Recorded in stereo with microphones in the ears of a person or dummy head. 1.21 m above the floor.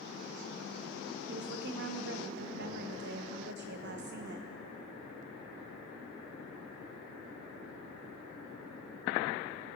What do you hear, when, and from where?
1.3 s a woman speaking: 60° right (ahead or behind), 0.6 m